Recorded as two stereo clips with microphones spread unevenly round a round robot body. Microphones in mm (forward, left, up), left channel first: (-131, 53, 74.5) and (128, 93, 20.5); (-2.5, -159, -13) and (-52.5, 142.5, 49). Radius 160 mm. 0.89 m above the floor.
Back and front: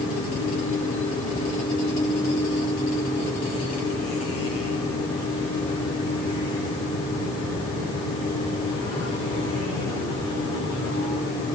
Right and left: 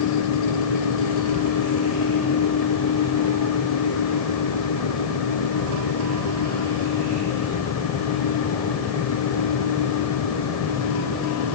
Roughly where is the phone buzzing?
I don't hear a phone buzzing.